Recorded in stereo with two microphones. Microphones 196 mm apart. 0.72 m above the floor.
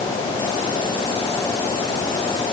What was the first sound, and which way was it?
Only background noise.